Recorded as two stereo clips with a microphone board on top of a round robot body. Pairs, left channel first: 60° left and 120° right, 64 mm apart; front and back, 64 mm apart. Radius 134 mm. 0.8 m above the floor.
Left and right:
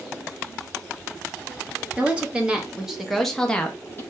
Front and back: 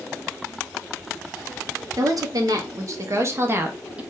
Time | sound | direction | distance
2.0 | a woman speaking | 175° left | 1.8 m